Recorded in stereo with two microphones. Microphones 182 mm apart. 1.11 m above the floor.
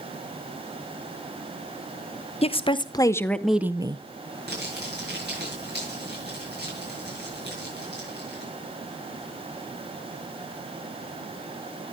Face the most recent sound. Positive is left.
turn(degrees=-65)  # may be behind; listen again after turning